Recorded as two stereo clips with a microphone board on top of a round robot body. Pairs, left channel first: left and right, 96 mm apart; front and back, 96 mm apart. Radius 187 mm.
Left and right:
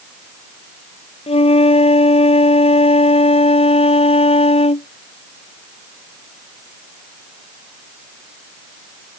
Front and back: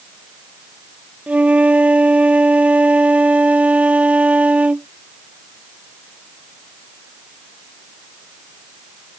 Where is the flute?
105° left.